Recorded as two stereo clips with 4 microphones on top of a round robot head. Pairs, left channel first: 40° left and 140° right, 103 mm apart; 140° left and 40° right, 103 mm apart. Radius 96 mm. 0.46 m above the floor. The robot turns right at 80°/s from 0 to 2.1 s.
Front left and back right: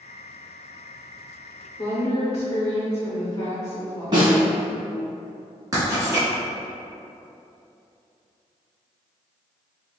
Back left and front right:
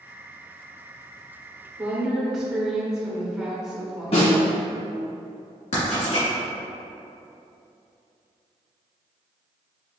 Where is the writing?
160° left, 1.8 m.